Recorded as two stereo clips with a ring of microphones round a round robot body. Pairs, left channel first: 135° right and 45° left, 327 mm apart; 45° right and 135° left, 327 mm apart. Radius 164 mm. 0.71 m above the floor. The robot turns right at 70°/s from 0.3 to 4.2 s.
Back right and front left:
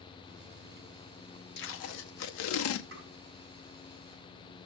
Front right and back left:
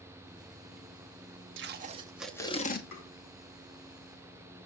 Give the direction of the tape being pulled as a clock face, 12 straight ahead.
6 o'clock.